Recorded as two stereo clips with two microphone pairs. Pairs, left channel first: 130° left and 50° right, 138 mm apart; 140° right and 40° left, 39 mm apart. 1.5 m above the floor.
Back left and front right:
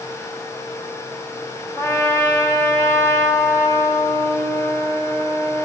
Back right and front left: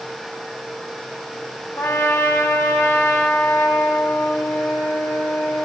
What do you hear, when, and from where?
1.8 s a trumpet: 155° right, 1.3 m